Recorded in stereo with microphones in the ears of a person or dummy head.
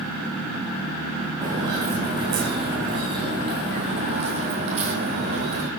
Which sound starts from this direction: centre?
Footsteps, at 1.4 s.